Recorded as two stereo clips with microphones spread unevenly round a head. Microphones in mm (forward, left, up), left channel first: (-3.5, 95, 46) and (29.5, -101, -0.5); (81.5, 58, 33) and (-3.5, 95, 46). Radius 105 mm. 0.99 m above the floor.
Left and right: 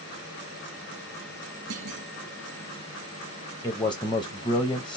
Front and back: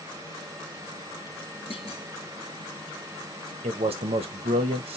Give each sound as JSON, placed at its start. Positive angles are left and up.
{"t": 1.7, "sound": "a clunk", "azimuth_deg": -75, "distance_m": 2.0}
{"t": 3.6, "sound": "a man speaking", "azimuth_deg": 175, "distance_m": 0.8}